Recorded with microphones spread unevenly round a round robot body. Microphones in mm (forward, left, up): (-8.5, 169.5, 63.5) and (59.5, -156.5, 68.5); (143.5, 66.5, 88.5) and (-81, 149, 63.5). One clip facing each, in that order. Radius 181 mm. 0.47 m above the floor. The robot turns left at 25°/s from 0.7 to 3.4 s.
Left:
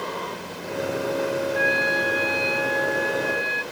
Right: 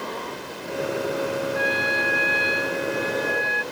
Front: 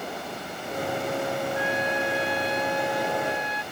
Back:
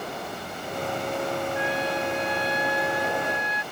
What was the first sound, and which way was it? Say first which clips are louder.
A trumpet: left 1 dB, even; 125° right.